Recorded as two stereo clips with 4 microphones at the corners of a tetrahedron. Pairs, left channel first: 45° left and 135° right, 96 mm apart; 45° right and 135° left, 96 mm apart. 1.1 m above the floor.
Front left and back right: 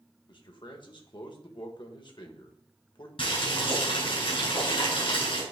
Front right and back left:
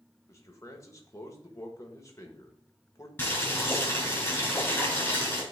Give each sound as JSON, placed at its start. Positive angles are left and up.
{"t": 0.3, "sound": "a man speaking", "azimuth_deg": 10, "distance_m": 1.3}
{"t": 3.2, "sound": "boiling", "azimuth_deg": 25, "distance_m": 3.5}